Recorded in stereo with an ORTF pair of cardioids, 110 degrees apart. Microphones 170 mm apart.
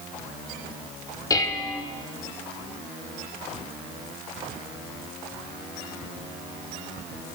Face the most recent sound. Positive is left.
turn(degrees=20)